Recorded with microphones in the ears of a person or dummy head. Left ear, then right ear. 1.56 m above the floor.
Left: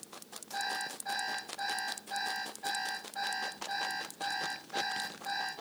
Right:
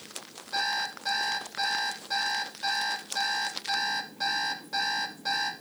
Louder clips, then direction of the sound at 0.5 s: Right 7 dB; 70° right (ahead or behind).